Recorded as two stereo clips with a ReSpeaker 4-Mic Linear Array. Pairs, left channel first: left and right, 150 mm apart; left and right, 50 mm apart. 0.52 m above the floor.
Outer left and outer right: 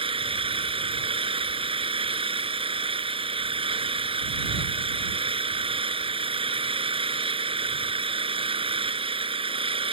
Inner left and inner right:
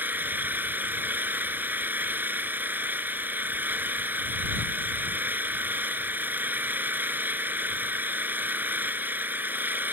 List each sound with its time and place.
0.0 s an engine running: 35° right (ahead or behind)